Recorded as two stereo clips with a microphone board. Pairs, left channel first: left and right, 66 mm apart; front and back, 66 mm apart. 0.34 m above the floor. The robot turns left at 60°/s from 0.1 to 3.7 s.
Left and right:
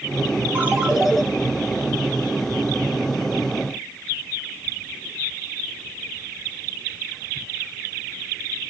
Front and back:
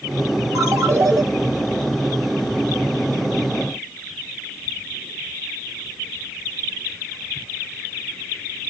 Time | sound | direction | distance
0.6 | a ringtone | 145° right | 1.1 m